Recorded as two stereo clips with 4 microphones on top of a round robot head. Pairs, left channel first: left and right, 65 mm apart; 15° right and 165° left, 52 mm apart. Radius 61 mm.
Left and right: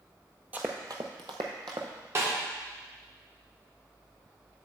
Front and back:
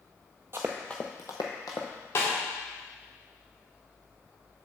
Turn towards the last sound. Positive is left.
turn(degrees=-45)